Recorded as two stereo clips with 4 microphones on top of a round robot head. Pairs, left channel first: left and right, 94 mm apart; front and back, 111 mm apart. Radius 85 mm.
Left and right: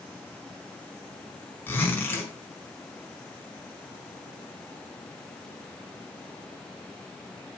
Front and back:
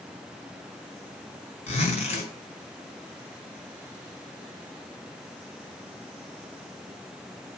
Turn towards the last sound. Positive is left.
turn(degrees=25)